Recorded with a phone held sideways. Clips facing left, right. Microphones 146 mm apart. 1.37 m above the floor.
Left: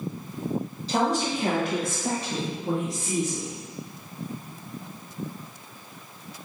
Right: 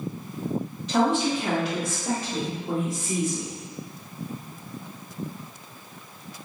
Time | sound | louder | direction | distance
0.9 | a woman speaking | right 3 dB | 35° left (ahead or behind) | 1.3 m